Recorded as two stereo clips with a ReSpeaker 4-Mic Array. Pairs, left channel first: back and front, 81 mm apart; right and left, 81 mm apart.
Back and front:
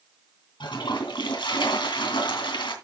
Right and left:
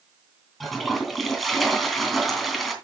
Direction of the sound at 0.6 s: Straight behind.